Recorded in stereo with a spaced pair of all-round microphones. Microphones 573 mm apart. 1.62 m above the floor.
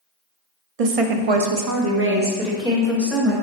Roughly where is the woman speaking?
Right.